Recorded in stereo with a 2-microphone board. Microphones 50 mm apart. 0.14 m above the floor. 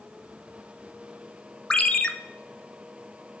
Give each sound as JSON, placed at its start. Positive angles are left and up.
{"t": 1.7, "sound": "a ringtone", "side_deg": 20, "distance_m": 0.5}